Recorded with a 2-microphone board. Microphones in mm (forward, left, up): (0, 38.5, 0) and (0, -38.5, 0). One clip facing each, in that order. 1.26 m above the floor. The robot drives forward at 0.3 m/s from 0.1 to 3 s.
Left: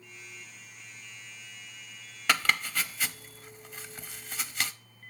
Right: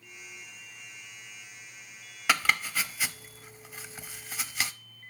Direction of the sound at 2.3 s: 5° right (ahead or behind).